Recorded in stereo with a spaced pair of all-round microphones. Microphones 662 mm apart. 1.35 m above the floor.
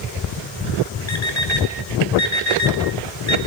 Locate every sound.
1.1 s an alarm clock: 75° left (ahead or behind), 2.5 m